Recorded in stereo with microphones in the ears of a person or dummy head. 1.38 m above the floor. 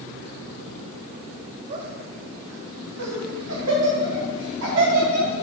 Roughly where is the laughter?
Right.